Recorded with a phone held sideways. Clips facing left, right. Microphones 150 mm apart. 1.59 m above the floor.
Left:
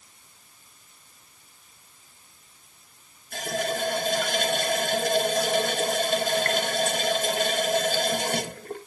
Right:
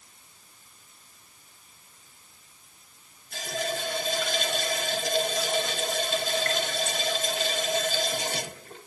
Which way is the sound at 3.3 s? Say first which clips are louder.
Left 4 dB; 55° left (ahead or behind).